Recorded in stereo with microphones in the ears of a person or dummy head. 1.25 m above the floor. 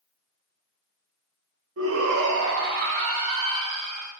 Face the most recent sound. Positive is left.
turn(degrees=-25)  # may be behind; listen again after turning